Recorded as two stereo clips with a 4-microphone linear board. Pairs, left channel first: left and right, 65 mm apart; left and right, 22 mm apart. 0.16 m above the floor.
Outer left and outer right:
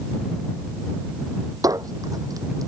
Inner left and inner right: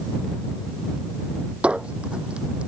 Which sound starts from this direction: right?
A squeak, at 1.6 s.